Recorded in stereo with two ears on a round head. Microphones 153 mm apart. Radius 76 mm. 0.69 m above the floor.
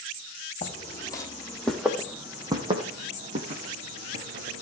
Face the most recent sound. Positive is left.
turn(degrees=-55)  # may be behind; listen again after turning